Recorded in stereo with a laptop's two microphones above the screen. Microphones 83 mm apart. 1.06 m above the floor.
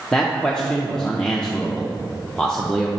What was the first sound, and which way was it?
A man speaking, 10° left (ahead or behind).